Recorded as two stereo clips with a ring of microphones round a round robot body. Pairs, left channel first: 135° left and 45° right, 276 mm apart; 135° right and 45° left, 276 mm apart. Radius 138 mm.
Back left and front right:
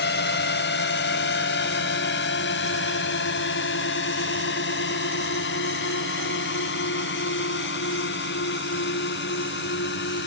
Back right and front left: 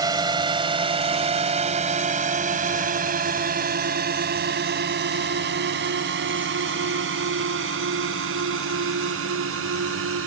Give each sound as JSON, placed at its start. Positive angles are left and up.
{"t": 0.0, "sound": "a drone", "azimuth_deg": 115}